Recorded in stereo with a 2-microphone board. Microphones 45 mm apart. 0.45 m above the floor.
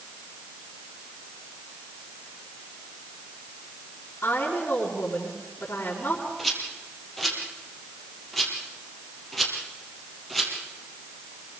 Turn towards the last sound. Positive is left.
turn(degrees=5)  # may be behind; listen again after turning